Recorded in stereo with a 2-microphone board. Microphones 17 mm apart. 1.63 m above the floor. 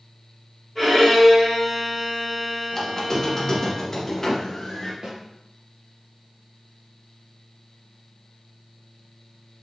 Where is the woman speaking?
I don't hear a woman speaking.